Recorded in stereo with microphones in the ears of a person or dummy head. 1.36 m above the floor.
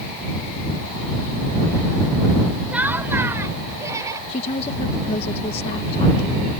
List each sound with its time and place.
2.7 s laughter: 10° right (ahead or behind); by 4.2 s 25° right (ahead or behind)
4.3 s a woman speaking: 40° left (ahead or behind)